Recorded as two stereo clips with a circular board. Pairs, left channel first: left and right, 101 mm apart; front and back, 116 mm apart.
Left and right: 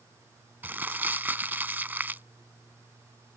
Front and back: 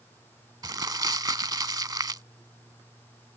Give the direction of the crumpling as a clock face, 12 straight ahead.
5 o'clock.